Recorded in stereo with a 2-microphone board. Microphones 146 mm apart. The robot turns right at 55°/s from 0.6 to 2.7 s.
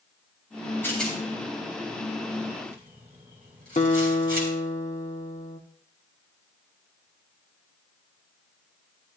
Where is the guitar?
50° left (ahead or behind), 1.0 m.